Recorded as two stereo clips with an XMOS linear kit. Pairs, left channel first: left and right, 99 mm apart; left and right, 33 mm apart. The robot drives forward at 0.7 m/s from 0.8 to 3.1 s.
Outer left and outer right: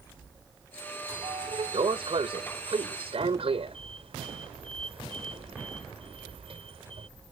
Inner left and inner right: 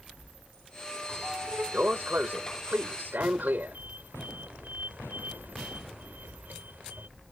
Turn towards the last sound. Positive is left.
turn(degrees=-75)  # may be behind; listen again after turning